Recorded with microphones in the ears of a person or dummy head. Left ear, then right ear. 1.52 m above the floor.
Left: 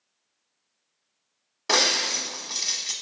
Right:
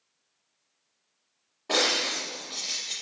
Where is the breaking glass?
55° left (ahead or behind), 1.3 m.